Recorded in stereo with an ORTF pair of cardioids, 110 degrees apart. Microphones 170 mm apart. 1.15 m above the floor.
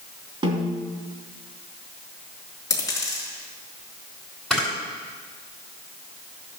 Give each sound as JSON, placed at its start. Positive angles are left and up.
{"t": 0.4, "sound": "a snare drum", "azimuth_deg": -30, "distance_m": 3.0}
{"t": 2.7, "sound": "a dropped coin", "azimuth_deg": 20, "distance_m": 4.5}
{"t": 4.5, "sound": "a camera shutter", "azimuth_deg": 0, "distance_m": 5.5}